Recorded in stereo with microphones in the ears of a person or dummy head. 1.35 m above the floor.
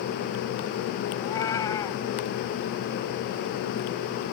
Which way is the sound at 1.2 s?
25° left (ahead or behind).